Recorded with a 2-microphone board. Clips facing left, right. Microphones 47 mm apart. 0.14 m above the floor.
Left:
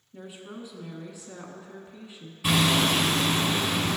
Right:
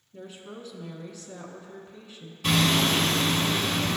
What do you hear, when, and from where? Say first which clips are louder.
0.1 s a woman speaking: even; 15° left (ahead or behind), 1.2 m
2.4 s hammering: even; 10° left (ahead or behind), 1.3 m